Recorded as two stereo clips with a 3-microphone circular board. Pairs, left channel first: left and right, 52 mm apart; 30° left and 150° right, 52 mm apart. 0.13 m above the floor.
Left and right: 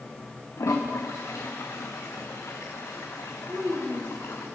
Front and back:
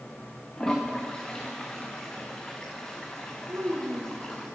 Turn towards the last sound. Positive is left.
turn(degrees=-135)